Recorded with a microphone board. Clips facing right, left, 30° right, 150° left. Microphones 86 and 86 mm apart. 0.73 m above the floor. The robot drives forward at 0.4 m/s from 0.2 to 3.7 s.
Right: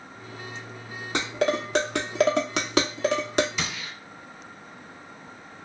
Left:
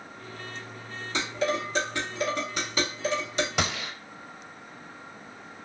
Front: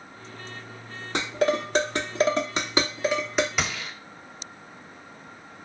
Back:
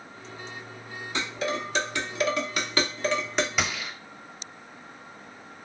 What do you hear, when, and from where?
1.1 s dishes clattering: 55° right, 0.9 m; by 3.5 s 120° right, 0.9 m
3.6 s a gunshot: 60° left, 0.6 m; by 3.9 s 65° left, 0.6 m